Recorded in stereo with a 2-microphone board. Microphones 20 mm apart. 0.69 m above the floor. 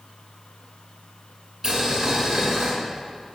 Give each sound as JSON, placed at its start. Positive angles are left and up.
{"t": 1.6, "sound": "boiling", "side_deg": -20, "distance_m": 2.5}